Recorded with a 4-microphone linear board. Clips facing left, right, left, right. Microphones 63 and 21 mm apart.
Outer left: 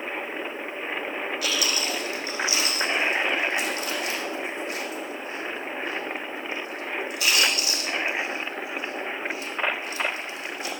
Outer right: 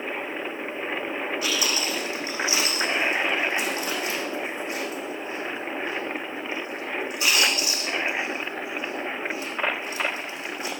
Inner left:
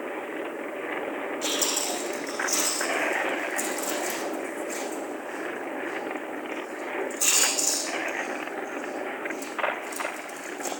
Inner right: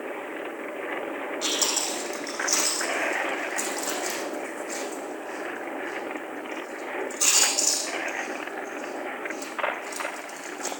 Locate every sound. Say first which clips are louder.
1.4 s chewing: outer left 1 dB, inner right 2 dB; 30° right (ahead or behind), 5.5 m